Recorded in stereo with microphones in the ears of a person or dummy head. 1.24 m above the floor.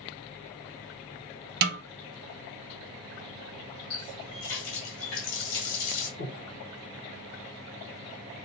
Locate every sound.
1.6 s a snare drum: 60° right (ahead or behind), 0.5 m
3.9 s a running tap: 80° left, 1.5 m
6.2 s breathing: 70° left (ahead or behind), 1.4 m